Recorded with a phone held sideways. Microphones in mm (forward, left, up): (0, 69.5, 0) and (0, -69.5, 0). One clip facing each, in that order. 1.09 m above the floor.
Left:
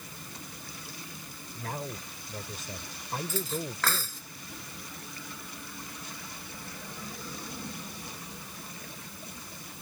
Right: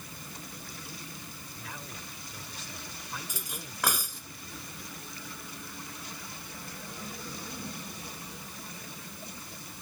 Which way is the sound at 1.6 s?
50° left (ahead or behind).